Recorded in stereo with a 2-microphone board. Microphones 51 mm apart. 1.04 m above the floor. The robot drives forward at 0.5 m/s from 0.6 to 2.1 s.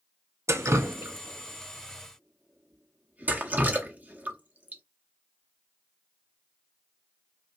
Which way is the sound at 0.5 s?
60° right (ahead or behind).